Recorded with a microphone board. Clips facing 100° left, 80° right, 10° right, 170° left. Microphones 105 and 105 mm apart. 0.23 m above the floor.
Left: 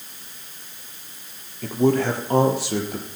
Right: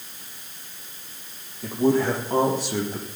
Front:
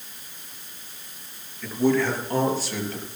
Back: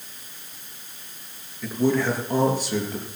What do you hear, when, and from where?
1.6 s a man speaking: 90° left, 4.5 m; by 3.1 s 95° left, 6 m